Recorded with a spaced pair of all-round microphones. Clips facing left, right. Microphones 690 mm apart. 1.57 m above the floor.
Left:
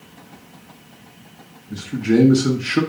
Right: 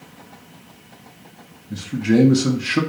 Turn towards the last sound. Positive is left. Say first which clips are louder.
# even
turn(degrees=-5)  # may be behind; listen again after turning